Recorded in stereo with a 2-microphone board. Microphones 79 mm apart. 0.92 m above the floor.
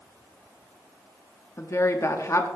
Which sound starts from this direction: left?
A woman speaking, at 1.6 s.